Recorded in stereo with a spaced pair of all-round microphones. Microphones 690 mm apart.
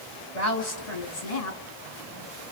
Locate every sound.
0.3 s a woman speaking: 55° left (ahead or behind), 3 m